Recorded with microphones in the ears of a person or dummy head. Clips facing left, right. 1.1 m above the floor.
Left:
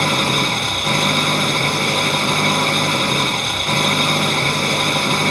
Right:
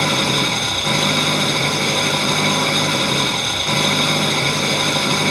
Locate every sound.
0.0 s an engine running: 5° right (ahead or behind)